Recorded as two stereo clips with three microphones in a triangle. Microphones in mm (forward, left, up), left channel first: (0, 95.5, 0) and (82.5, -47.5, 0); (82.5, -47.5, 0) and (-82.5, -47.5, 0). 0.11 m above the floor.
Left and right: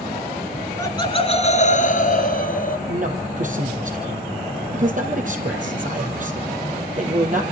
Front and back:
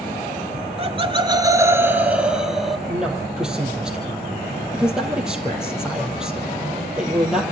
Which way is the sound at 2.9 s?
95° right.